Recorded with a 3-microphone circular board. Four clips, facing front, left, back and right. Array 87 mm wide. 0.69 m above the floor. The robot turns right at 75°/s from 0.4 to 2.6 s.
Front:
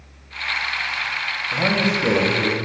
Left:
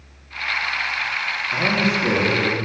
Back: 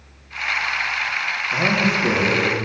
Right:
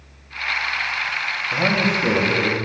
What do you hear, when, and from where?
1.5 s a man speaking: 65° right, 4.5 m; by 2.5 s 15° left, 4.5 m